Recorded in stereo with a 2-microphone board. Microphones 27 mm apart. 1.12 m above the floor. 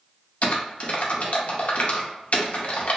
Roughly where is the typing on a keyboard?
Left.